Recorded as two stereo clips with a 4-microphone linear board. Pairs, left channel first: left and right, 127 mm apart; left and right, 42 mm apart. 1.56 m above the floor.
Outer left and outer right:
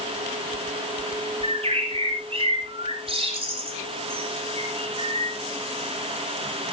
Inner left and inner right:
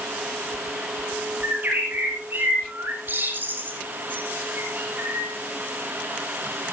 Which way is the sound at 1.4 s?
50° right (ahead or behind).